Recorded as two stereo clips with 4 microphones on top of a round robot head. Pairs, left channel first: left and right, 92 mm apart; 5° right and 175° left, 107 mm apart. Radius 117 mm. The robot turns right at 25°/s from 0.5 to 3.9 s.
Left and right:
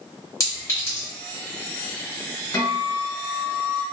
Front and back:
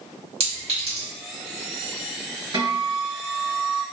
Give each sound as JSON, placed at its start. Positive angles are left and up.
{"t": 0.4, "sound": "a clink", "azimuth_deg": 145, "distance_m": 2.0}
{"t": 2.5, "sound": "a guitar", "azimuth_deg": 140, "distance_m": 1.1}